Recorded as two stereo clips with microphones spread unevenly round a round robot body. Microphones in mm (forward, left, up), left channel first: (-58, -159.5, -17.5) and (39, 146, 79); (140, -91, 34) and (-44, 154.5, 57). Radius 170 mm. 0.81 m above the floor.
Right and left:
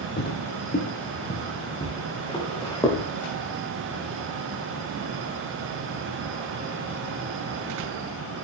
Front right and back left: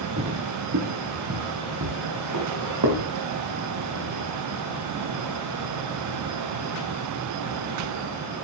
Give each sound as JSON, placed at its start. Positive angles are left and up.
{"t": 0.2, "sound": "footsteps", "azimuth_deg": -175, "distance_m": 1.8}